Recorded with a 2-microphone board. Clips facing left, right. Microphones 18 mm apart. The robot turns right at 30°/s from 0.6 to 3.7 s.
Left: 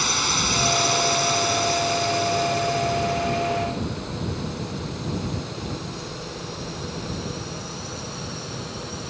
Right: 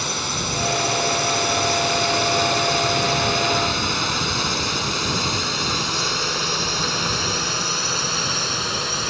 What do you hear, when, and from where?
0.0 s a drone: 10° left (ahead or behind); by 9.1 s 55° right (ahead or behind)